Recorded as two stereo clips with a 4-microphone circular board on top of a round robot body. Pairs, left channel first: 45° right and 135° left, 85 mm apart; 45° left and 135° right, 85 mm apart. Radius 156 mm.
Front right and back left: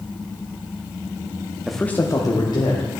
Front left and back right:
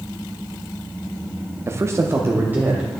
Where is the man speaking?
145° right, 0.8 m; by 2.9 s 70° right, 1.7 m.